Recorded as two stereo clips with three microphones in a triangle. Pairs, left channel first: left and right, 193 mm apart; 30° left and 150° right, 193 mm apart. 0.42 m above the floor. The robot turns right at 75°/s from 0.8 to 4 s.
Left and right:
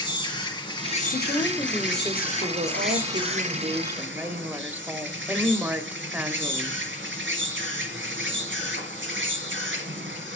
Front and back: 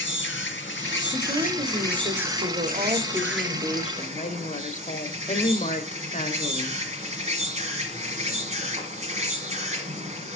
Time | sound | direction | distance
0.0 | an insect | 25° left | 1.9 m
1.1 | a woman speaking | 130° left | 1.3 m